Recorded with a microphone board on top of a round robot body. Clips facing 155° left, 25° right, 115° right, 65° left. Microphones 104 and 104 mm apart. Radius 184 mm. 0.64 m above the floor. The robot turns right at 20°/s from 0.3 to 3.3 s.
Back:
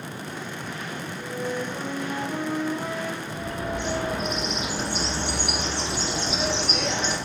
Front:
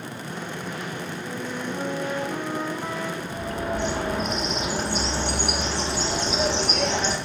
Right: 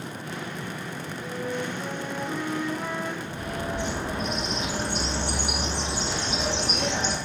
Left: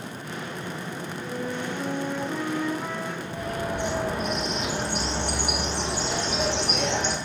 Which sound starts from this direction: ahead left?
A bird, at 3.2 s.